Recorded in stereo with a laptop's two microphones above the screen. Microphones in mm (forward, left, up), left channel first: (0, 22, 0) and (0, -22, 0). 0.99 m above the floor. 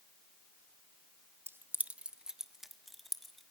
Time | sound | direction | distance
1.5 | keys jangling | 60° right (ahead or behind) | 0.5 m